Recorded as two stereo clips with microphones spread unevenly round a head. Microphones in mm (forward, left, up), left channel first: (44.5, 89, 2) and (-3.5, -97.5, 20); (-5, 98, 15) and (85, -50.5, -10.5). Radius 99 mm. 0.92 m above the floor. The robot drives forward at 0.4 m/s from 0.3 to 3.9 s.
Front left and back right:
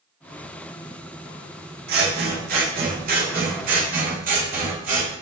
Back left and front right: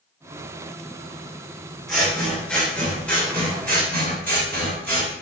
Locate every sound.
1.9 s scissors: 150° right, 2 m; by 5.1 s 155° right, 3 m